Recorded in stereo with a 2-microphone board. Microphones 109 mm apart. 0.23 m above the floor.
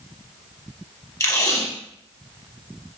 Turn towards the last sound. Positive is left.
turn(degrees=30)  # may be behind; listen again after turning